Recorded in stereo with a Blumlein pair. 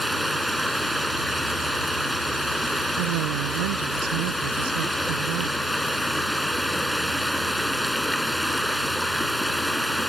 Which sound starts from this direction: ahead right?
A woman speaking, at 3.0 s.